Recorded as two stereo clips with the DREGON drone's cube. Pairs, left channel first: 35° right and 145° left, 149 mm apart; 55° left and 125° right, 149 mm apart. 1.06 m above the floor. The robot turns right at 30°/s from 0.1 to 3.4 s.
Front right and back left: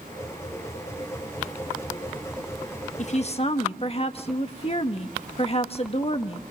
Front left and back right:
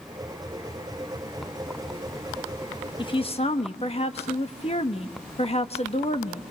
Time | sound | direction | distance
3.0 | a woman speaking | straight ahead | 1.4 m